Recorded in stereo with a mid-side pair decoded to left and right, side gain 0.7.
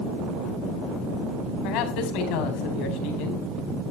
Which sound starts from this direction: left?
A man speaking, at 1.6 s.